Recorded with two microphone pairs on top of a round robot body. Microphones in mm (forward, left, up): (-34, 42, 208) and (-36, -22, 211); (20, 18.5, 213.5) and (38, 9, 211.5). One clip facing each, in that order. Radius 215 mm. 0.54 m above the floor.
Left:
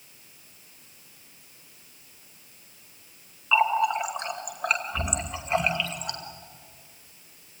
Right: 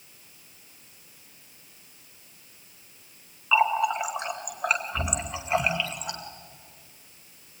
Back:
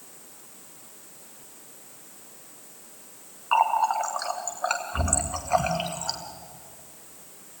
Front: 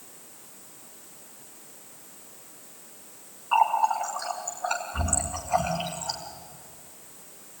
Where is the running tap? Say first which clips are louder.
Even, even; straight behind, 2.0 m.